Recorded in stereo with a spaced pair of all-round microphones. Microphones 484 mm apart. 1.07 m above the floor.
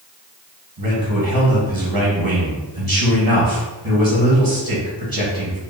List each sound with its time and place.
0.8 s a man speaking: 45° right (ahead or behind), 1.4 m